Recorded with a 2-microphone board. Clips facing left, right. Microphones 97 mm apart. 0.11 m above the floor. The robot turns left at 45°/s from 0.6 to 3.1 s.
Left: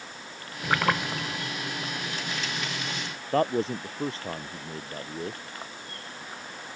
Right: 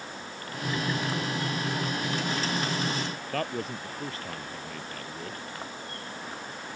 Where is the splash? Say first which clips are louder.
Left 4 dB; 85° left; by 1.4 s 60° left (ahead or behind).